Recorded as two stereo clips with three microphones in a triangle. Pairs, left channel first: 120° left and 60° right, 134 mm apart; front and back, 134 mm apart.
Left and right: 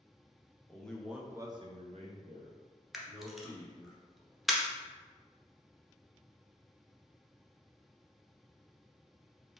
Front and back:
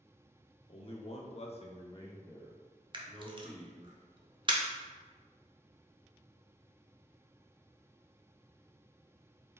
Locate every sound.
0.7 s a man speaking: 40° left, 0.9 m; by 3.9 s 90° right, 1.9 m
2.9 s a camera shutter: 150° right, 0.6 m